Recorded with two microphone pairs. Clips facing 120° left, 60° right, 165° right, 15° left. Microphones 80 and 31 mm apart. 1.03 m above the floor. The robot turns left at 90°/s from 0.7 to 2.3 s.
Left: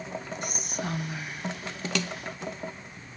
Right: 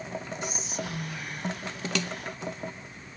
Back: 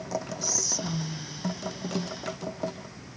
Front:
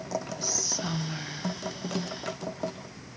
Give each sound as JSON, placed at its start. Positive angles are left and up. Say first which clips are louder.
{"t": 0.4, "sound": "whispering", "louder": "left 1 dB, even", "azimuth_deg": 95, "distance_m": 1.5}